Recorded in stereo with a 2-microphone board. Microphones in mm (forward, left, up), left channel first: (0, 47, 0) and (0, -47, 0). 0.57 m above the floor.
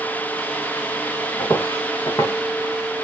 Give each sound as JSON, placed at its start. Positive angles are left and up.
{"t": 1.4, "sound": "footsteps", "side_deg": 40, "distance_m": 4.5}